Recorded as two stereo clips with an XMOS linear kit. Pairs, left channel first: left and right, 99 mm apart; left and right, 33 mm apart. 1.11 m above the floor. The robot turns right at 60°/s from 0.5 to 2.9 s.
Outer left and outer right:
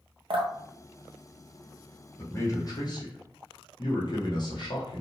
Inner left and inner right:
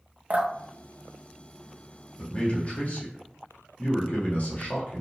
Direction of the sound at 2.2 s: 25° left.